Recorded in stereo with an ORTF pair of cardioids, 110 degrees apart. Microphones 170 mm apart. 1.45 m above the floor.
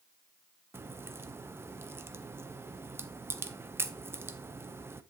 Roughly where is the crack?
Ahead.